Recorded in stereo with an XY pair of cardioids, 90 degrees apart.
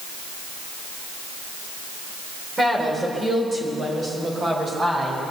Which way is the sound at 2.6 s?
30° right.